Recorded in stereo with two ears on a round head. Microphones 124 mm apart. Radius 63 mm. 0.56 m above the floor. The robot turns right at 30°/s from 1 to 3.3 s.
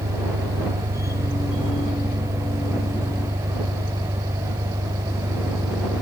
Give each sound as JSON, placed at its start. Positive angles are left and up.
{"t": 0.0, "sound": "an engine running", "azimuth_deg": -75}